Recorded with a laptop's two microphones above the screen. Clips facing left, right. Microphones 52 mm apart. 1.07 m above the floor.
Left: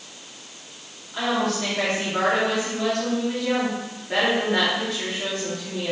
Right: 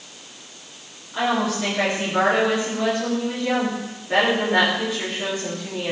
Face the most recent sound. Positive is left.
turn(degrees=-5)  # may be behind; listen again after turning